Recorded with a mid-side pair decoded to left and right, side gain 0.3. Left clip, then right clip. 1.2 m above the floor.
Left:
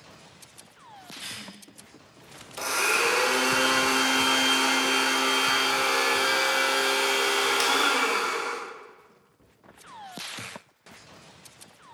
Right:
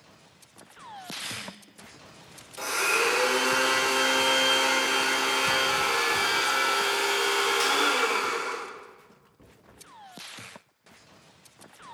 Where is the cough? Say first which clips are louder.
Right 1 dB; 10° right, 0.5 m.